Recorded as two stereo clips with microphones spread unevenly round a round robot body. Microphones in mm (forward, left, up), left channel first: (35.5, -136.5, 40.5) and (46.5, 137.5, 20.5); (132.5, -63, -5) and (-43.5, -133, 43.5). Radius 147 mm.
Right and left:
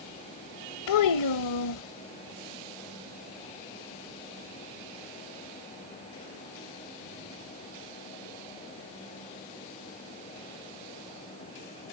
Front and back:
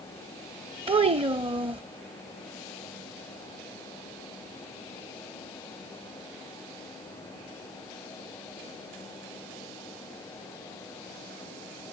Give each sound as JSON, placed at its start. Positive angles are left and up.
{"t": 0.9, "sound": "a child speaking", "azimuth_deg": -90}